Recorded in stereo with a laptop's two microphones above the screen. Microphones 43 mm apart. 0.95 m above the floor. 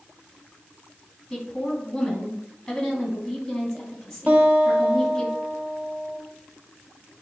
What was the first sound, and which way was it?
A woman speaking, 10° left (ahead or behind).